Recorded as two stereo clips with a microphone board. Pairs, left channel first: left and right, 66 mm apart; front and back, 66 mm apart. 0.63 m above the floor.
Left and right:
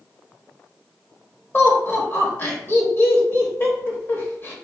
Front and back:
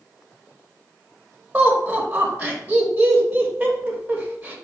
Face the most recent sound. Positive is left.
turn(degrees=125)